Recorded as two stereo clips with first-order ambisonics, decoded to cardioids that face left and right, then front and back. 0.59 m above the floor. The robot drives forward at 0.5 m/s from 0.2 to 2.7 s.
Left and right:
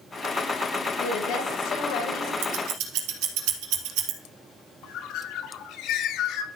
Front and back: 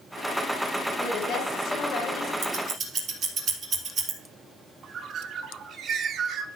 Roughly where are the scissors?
Behind right.